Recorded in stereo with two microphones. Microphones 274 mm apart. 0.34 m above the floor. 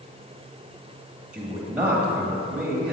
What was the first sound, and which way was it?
A man speaking, 5° right (ahead or behind).